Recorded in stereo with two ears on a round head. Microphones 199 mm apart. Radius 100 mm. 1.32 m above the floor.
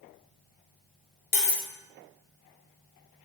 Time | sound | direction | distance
1.3 | cutlery clinking | 30° left (ahead or behind) | 0.7 m